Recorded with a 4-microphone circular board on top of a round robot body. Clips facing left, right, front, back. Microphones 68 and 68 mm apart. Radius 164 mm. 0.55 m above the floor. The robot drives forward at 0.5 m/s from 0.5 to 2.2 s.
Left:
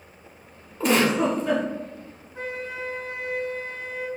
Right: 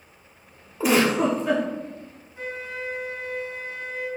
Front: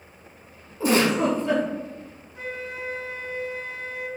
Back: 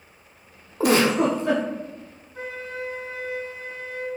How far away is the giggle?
About 0.6 m.